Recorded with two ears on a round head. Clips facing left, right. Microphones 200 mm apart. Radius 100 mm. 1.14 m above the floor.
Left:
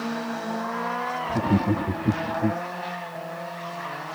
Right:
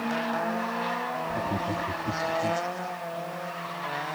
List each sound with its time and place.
1.3 s laughter: 50° left (ahead or behind)